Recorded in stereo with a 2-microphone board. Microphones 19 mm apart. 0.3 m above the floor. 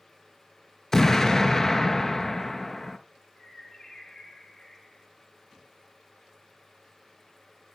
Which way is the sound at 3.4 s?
15° left (ahead or behind).